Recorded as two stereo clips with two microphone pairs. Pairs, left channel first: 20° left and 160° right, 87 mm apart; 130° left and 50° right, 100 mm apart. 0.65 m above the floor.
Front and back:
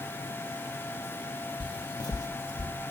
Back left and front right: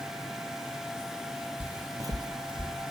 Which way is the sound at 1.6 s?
30° left.